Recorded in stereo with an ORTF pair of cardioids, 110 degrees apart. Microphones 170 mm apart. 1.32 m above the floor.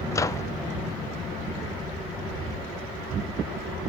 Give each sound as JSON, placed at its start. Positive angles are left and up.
{"t": 0.1, "sound": "a microwave", "azimuth_deg": 20, "distance_m": 0.6}